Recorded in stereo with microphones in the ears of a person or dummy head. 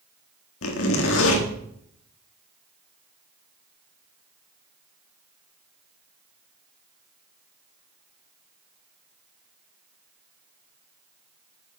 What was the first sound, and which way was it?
A zipper, 85° left.